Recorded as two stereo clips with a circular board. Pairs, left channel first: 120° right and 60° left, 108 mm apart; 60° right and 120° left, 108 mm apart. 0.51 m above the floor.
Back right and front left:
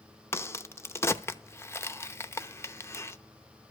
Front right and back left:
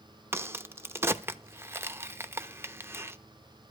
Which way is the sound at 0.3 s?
Straight behind.